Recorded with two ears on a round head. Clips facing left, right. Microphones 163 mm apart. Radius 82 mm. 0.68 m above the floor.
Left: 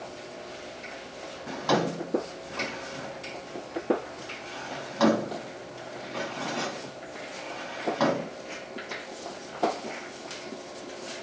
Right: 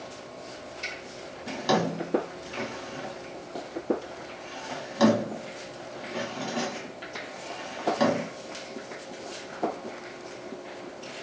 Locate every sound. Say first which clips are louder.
1.5 s a drawer: even; 20° right (ahead or behind), 1.7 m